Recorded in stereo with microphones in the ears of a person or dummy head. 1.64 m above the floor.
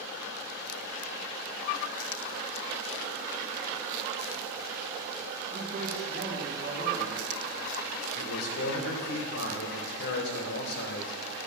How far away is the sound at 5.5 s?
About 2.5 m.